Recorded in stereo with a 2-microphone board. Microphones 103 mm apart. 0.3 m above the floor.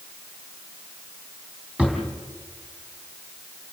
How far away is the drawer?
About 3.5 m.